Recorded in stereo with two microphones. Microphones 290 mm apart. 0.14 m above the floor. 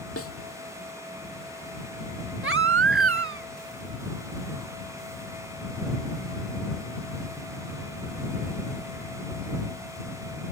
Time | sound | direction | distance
0.2 | a snare drum | 50° left (ahead or behind) | ?
2.4 | a baby crying | 45° right (ahead or behind) | ?